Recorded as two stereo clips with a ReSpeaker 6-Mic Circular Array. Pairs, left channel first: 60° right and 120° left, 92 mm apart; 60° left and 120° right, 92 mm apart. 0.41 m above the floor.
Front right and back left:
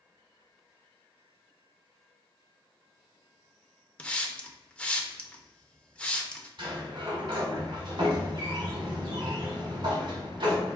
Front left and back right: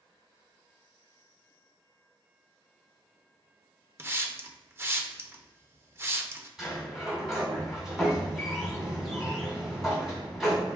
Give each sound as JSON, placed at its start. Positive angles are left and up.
{"t": 4.0, "sound": "a hiss", "azimuth_deg": -120, "distance_m": 0.6}
{"t": 6.6, "sound": "a sliding door", "azimuth_deg": 155, "distance_m": 1.8}